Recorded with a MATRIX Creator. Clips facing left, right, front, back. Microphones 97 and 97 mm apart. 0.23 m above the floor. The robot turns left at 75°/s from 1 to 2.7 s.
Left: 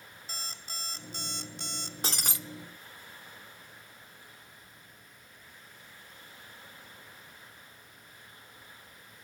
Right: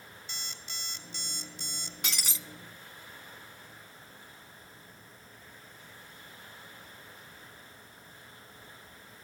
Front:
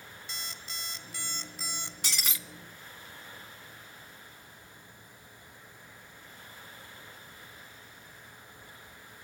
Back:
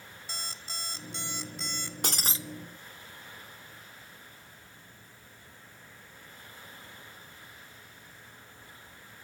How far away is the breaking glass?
About 0.5 m.